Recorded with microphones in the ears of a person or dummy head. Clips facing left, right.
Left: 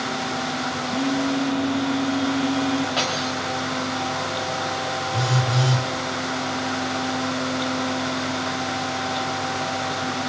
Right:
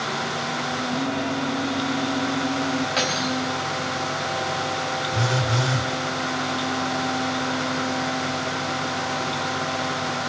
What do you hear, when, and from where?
0.9 s a phone buzzing: 5° left (ahead or behind), 0.9 m
3.0 s cutlery clinking: 25° right (ahead or behind), 1.2 m
5.1 s a phone buzzing: 5° right (ahead or behind), 1.7 m